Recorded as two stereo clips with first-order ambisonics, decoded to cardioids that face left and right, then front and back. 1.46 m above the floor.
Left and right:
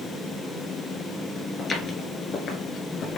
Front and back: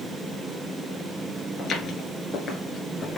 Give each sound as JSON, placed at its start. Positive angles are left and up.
{"t": 1.6, "sound": "footsteps", "azimuth_deg": 30, "distance_m": 1.6}